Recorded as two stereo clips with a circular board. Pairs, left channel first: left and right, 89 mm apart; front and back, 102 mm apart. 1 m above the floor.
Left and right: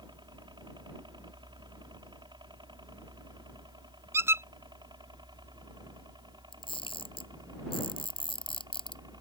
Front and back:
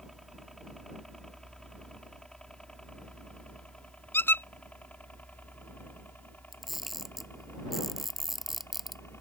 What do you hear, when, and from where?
0.0 s a helicopter: 90° right; by 9.2 s 65° right
4.1 s a squeak: 55° right
6.5 s a camera shutter: 90° left